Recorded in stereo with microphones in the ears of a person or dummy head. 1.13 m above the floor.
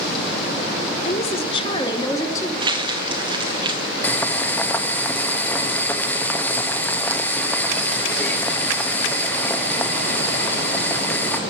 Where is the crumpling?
25° right (ahead or behind), 0.8 m.